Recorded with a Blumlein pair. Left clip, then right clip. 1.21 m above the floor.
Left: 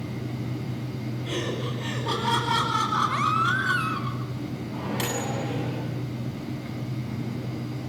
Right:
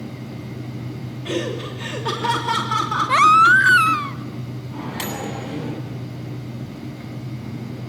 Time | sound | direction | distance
1.2 | laughter | 65° right | 3.5 m
3.1 | a baby crying | 55° right | 0.5 m
4.7 | a microwave | 10° right | 9 m